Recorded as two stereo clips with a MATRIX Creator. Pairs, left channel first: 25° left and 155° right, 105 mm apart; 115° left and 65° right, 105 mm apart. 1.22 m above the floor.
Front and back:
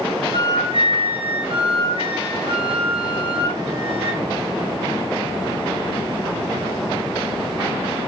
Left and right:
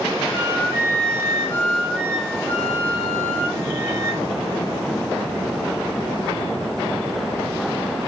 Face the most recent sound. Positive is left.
turn(degrees=-125)